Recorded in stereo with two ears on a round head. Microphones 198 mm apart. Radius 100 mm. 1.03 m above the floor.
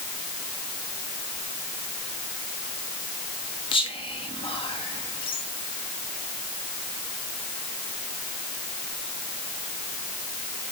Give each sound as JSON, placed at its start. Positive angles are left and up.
{"t": 3.7, "sound": "whispering", "side_deg": 20, "distance_m": 1.2}